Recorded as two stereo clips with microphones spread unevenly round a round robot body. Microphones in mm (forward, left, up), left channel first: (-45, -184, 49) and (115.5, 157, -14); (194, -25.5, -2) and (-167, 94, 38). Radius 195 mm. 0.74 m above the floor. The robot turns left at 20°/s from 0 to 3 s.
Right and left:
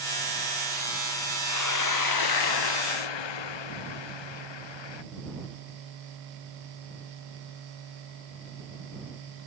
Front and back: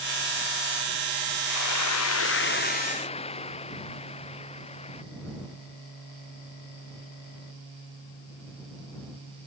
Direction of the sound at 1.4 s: 65° right.